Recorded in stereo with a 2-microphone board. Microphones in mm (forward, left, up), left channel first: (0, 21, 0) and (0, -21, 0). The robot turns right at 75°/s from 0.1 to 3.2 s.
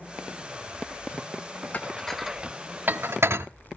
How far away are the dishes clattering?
About 0.7 m.